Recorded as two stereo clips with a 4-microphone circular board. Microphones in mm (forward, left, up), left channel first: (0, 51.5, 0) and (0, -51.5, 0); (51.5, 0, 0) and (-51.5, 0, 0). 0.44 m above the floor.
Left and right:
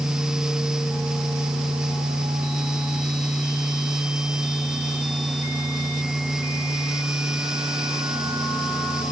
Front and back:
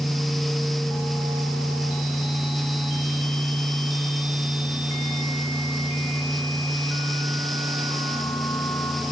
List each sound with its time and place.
Only background noise.